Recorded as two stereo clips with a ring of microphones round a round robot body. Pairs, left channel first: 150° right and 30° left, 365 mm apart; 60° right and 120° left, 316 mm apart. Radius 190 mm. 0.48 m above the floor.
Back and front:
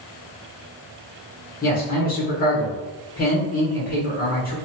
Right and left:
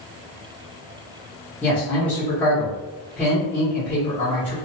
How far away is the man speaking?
About 1.1 m.